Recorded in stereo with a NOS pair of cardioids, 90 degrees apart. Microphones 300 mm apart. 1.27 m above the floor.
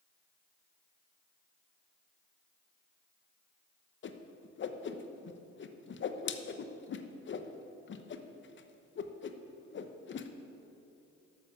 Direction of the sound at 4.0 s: 40° left.